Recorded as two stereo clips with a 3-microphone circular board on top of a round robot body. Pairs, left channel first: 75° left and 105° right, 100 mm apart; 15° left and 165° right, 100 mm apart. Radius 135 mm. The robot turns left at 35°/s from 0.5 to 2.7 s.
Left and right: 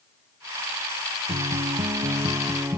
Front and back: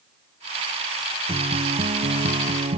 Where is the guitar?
125° right; by 2.8 s 175° right.